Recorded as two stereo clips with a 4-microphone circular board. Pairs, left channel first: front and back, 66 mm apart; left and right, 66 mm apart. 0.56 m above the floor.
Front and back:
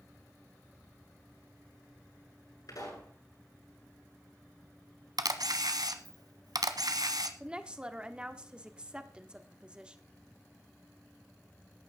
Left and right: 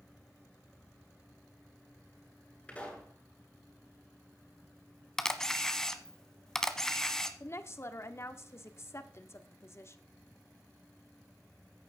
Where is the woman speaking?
110° left, 1.1 m.